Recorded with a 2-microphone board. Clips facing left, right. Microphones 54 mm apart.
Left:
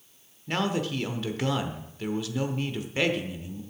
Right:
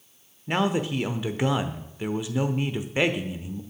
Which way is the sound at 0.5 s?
15° right (ahead or behind).